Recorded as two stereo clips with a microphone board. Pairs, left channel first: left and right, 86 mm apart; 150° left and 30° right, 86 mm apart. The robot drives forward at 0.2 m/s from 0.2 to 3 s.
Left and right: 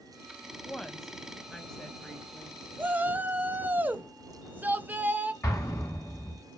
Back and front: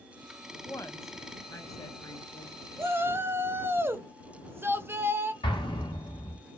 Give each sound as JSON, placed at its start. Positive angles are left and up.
{"t": 0.6, "sound": "a woman speaking", "azimuth_deg": 175, "distance_m": 0.6}
{"t": 2.8, "sound": "a shout", "azimuth_deg": -45, "distance_m": 0.6}
{"t": 5.4, "sound": "an explosion", "azimuth_deg": 145, "distance_m": 1.7}